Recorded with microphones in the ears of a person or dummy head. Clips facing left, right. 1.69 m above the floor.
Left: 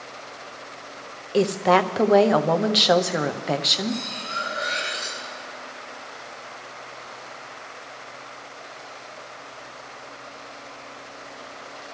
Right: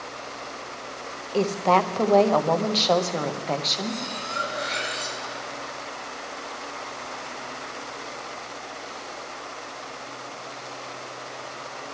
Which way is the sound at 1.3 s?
15° left (ahead or behind).